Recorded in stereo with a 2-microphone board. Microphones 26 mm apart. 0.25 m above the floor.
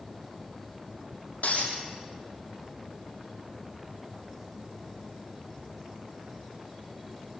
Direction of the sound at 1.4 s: 70° left (ahead or behind).